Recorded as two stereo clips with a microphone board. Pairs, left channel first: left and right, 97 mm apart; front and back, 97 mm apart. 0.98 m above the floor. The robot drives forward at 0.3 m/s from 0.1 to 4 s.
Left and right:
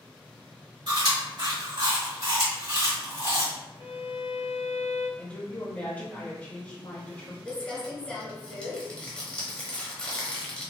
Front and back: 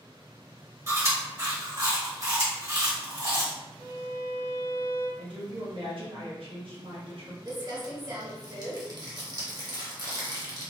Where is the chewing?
120° right, 1.4 m; by 3.5 s 140° right, 2.0 m.